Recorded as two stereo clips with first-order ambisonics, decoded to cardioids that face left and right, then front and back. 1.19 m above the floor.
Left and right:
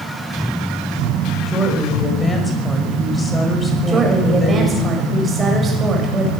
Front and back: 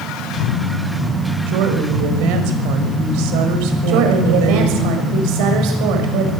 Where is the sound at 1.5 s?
170° left, 5.5 m.